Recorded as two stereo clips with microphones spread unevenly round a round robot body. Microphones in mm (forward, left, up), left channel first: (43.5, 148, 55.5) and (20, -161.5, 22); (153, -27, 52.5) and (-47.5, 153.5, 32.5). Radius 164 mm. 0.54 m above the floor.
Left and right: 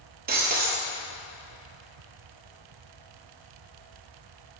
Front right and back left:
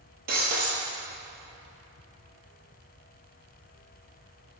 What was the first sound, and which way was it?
Breaking glass, 160° right.